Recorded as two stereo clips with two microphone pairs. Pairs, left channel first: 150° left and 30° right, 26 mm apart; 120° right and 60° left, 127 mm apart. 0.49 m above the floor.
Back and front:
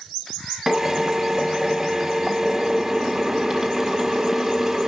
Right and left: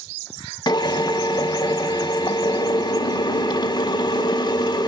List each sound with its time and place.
0.7 s a drill: 95° right, 1.5 m